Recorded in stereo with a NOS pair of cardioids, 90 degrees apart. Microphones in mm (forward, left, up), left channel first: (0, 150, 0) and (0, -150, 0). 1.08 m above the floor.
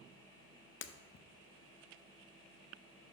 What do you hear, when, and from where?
0.8 s breaking glass: 45° left, 0.6 m